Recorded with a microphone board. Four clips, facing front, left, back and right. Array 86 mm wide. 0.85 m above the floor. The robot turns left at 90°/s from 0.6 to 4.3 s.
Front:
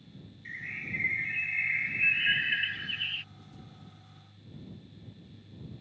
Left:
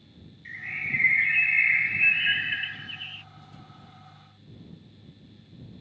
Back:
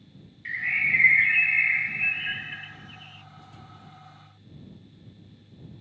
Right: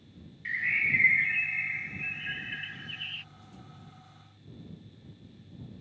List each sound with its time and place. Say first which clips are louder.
0.5 s a bird: right 4 dB, back 13 dB; 140° right; by 3.2 s 20° right